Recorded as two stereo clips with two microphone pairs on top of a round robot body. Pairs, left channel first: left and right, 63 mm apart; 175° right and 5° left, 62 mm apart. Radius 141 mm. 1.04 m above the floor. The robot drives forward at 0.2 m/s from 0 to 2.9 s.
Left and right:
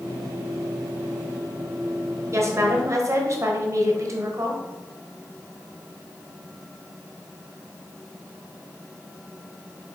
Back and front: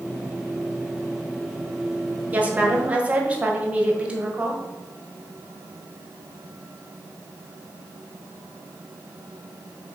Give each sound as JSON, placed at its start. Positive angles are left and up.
{"t": 2.3, "sound": "a woman speaking", "azimuth_deg": -55, "distance_m": 1.4}